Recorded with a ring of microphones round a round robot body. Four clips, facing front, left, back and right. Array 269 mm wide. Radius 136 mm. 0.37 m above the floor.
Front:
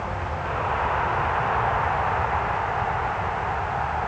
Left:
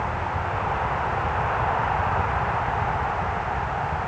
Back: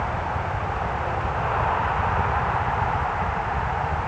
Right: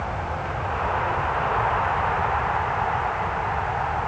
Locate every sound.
Only background noise.